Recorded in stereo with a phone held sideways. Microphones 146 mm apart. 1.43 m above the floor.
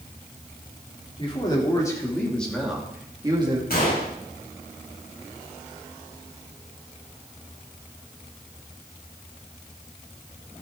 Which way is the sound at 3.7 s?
85° left.